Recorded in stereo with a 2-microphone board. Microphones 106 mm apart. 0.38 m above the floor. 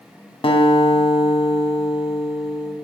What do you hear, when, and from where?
0.4 s a guitar: 60° left (ahead or behind), 0.7 m